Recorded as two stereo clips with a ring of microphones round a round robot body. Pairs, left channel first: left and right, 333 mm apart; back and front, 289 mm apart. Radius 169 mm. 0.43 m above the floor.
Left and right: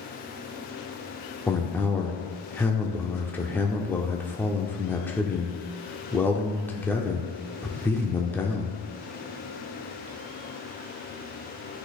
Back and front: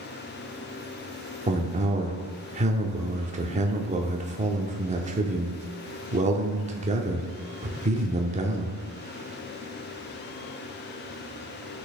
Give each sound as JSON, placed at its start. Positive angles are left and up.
{"t": 1.5, "sound": "a man speaking", "azimuth_deg": 15, "distance_m": 0.7}